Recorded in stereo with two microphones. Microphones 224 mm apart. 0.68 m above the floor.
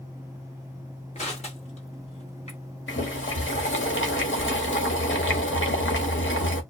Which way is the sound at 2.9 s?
65° left (ahead or behind).